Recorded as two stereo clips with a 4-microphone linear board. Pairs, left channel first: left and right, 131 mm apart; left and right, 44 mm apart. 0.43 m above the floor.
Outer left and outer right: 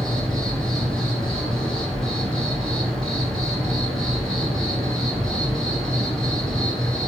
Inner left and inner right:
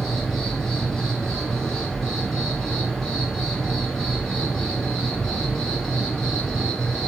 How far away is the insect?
About 1.6 m.